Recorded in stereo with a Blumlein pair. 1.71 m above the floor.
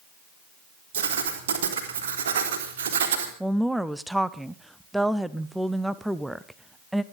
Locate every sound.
0.9 s writing: 55° right, 4 m
3.4 s a woman speaking: straight ahead, 0.8 m